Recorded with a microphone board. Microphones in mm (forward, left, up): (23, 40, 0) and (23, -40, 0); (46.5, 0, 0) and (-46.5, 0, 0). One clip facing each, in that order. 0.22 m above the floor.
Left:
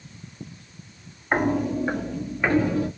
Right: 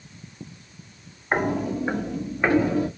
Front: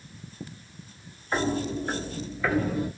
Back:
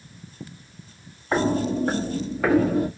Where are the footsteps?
Straight behind, 1.5 m; by 2.9 s 160° right, 2.5 m.